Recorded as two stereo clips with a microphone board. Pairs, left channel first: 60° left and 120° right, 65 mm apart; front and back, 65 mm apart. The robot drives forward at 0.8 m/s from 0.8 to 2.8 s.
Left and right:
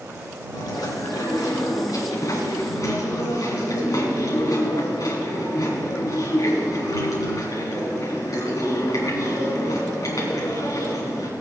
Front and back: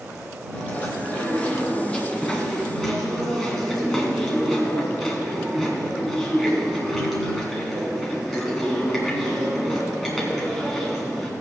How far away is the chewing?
About 4 m.